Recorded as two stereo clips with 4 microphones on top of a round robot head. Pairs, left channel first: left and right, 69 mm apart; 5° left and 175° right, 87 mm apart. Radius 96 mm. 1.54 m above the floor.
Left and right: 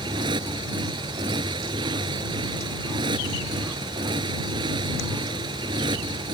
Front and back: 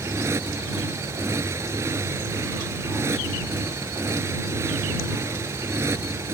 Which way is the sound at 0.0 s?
110° right.